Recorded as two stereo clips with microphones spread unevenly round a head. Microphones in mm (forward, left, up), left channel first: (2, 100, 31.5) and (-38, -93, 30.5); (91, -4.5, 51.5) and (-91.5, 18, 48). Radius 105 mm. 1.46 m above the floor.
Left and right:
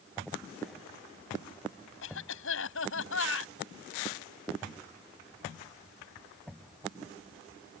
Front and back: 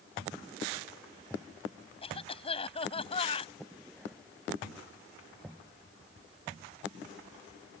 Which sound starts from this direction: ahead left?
A cough, at 2.0 s.